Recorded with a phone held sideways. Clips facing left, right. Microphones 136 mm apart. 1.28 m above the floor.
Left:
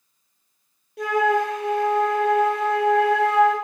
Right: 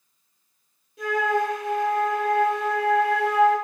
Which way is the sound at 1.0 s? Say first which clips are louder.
Left 3 dB; 70° left (ahead or behind).